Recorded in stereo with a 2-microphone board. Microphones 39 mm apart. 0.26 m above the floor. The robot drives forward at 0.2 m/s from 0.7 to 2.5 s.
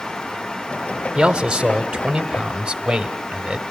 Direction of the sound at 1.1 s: 20° right (ahead or behind).